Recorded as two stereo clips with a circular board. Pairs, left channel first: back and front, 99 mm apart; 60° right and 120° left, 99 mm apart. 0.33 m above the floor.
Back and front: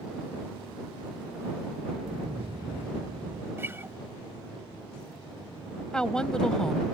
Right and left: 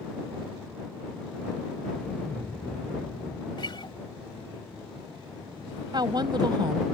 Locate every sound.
1.9 s an explosion: 15° left
3.6 s a guitar: 60° right
5.9 s a woman speaking: 100° left